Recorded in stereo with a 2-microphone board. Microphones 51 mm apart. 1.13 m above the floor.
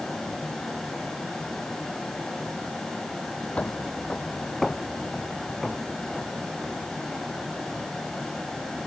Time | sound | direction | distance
3.6 | footsteps | 25° left (ahead or behind) | ?